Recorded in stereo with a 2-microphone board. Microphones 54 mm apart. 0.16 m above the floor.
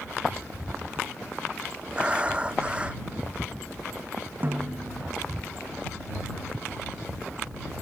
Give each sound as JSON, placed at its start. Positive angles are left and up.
{"t": 1.9, "sound": "breathing", "side_deg": -20}
{"t": 4.4, "sound": "a snare drum", "side_deg": -35}